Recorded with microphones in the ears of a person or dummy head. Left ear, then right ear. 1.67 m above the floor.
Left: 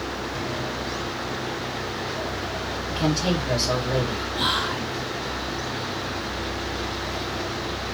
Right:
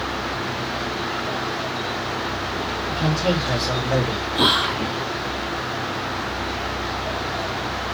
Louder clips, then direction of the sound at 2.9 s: Right 1 dB; 20° left (ahead or behind).